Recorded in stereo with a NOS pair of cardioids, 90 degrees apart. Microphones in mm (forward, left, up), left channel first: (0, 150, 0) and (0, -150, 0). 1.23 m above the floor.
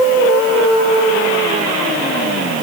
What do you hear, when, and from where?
Only background noise.